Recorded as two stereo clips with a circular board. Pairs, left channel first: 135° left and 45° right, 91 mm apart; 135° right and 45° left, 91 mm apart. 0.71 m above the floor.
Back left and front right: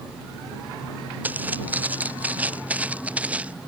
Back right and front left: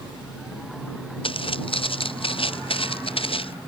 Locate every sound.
1.2 s footsteps: 120° right